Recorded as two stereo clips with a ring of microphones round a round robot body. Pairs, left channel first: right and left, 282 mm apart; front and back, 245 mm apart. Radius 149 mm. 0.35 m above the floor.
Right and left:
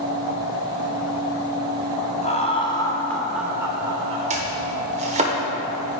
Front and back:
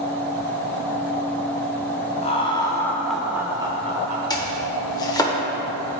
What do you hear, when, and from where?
2.2 s laughter: 45° right, 1.2 m; by 4.2 s 145° left, 1.2 m
4.3 s chopping: 55° left, 1.3 m